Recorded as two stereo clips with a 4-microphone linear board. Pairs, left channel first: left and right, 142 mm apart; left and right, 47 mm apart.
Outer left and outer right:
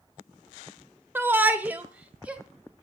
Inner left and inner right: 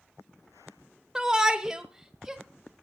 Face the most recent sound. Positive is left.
turn(degrees=-10)  # may be behind; listen again after turning